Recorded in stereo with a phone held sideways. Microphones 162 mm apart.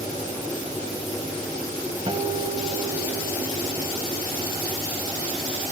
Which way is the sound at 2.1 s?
35° right (ahead or behind).